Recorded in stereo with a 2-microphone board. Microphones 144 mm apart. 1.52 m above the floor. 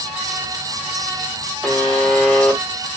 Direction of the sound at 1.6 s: 10° left (ahead or behind).